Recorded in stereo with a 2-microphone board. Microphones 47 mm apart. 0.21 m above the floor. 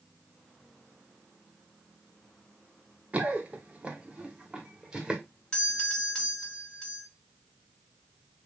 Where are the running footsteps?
30° right (ahead or behind), 1.7 m; by 5.2 s 15° right (ahead or behind), 3 m.